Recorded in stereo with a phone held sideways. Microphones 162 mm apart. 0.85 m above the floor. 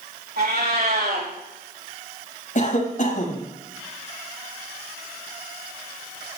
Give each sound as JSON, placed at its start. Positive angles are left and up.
{"t": 0.4, "sound": "a cat meowing", "side_deg": -80, "distance_m": 4.0}
{"t": 2.5, "sound": "a cough", "side_deg": 55, "distance_m": 5.0}